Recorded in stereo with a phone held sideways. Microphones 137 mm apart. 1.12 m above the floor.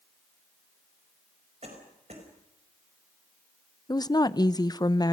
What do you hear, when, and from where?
1.6 s a cough: 50° right (ahead or behind), 5 m
3.9 s a woman speaking: 30° left (ahead or behind), 0.6 m